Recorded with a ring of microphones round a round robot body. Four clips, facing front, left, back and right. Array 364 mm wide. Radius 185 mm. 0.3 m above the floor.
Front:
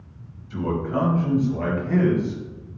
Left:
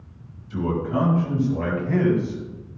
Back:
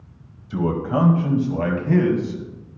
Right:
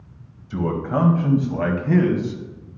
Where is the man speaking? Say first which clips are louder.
Right 1 dB, back 3 dB; 145° right, 2.0 m; by 2.4 s 120° right, 3 m.